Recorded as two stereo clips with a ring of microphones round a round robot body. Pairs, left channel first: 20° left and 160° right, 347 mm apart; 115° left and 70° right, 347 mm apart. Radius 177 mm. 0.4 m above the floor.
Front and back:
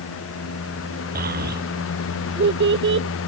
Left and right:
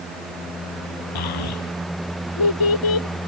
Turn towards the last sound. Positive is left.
turn(degrees=145)